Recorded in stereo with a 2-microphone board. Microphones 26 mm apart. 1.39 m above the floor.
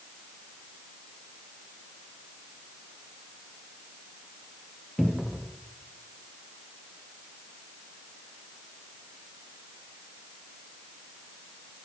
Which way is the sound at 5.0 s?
5° right (ahead or behind).